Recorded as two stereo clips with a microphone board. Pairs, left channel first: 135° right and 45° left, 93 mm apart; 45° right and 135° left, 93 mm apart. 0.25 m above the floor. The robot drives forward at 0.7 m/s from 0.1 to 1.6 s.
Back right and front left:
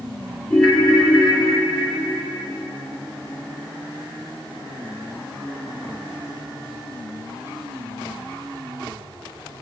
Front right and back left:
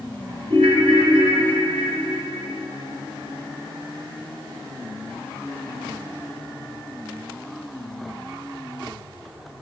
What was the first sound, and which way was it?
A ringtone, 140° left.